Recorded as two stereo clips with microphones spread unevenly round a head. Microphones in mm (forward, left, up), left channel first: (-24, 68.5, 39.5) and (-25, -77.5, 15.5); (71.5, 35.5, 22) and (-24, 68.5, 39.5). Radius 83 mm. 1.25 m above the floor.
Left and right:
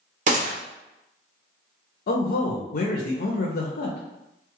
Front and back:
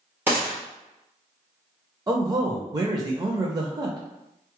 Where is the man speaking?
105° left, 0.6 m.